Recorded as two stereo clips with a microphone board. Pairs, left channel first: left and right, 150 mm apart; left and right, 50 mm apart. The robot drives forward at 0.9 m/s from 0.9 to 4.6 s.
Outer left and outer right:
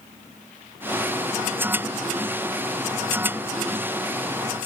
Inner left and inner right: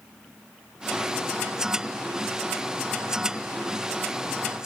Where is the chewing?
I don't hear chewing.